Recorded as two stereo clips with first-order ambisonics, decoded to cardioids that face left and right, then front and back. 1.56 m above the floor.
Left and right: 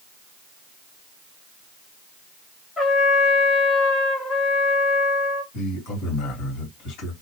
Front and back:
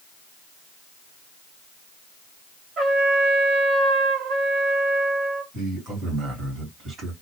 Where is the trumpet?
150° left, 1.2 m.